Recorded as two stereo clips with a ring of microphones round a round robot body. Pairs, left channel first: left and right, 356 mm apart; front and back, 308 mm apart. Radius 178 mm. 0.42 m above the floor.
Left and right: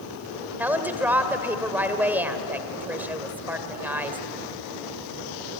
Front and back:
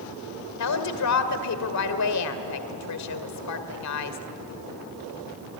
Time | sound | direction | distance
0.6 | a woman speaking | 5° right | 1.8 m